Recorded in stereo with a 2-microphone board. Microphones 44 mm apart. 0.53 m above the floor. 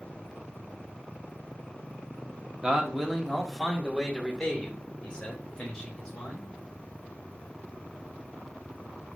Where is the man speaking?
15° right (ahead or behind), 0.8 m; by 6.5 s 20° left (ahead or behind), 2.5 m.